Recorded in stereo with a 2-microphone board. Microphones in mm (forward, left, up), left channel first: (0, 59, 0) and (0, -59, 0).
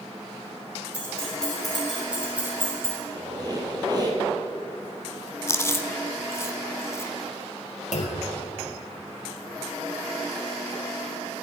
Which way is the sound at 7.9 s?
75° left (ahead or behind).